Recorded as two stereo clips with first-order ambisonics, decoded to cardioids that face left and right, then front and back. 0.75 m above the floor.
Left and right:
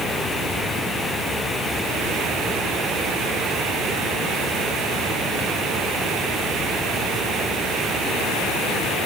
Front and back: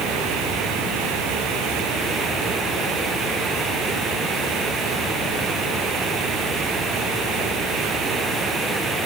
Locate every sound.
Only background noise.